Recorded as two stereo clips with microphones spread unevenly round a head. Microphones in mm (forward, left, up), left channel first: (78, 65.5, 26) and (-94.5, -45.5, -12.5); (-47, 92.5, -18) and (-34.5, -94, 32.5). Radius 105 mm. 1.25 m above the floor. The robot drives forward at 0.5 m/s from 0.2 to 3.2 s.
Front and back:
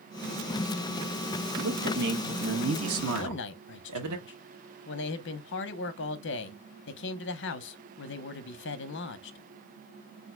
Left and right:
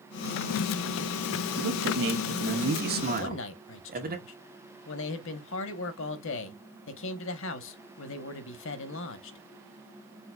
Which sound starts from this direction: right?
A man speaking, at 1.6 s.